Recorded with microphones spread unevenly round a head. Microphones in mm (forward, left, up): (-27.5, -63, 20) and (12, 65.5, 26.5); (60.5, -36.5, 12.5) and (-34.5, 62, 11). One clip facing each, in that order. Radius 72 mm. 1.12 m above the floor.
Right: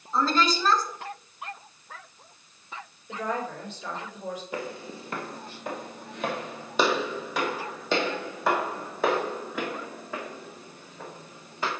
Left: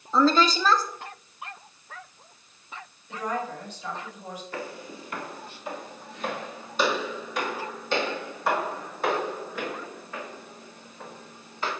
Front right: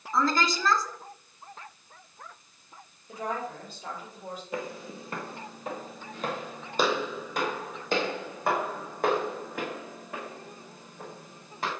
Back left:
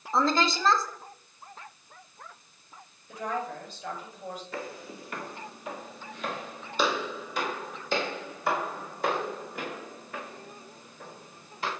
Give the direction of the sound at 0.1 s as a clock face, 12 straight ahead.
10 o'clock.